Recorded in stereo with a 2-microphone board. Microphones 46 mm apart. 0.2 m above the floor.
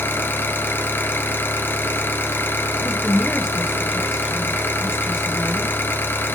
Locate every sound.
0.0 s an engine running: 55° left (ahead or behind), 1.8 m
2.7 s a woman speaking: 10° right (ahead or behind), 1.0 m